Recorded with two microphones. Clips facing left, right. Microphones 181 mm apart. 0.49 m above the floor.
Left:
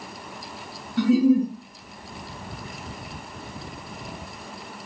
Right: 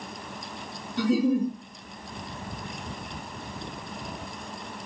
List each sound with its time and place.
1.0 s a giggle: 70° left (ahead or behind), 2 m